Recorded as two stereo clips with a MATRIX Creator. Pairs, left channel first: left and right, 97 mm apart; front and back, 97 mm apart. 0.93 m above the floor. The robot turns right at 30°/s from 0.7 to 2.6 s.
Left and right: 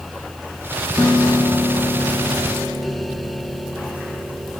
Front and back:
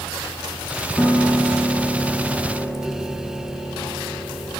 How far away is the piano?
About 0.8 m.